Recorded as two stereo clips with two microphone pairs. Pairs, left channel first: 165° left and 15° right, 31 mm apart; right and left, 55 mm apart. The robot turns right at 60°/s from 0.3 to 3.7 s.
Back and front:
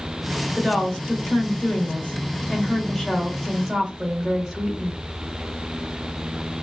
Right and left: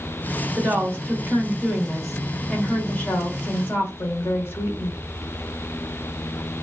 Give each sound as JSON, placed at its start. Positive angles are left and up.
{"t": 0.6, "sound": "a woman speaking", "azimuth_deg": 85, "distance_m": 1.2}